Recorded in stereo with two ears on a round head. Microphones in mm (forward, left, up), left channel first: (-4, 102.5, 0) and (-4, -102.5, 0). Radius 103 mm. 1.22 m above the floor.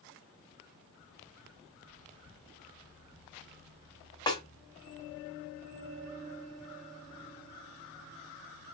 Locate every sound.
4.3 s a snare drum: 20° left (ahead or behind), 2 m